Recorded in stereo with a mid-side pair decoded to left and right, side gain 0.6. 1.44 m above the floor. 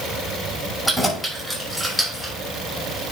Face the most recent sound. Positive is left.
turn(degrees=0)